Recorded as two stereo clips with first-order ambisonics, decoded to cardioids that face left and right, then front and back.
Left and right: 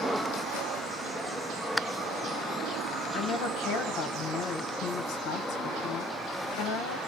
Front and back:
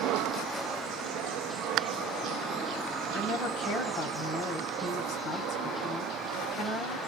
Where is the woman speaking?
50° left, 1.3 m.